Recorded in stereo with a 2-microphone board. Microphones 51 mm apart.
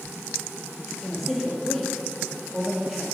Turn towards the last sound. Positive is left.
turn(degrees=0)  # may be behind; listen again after turning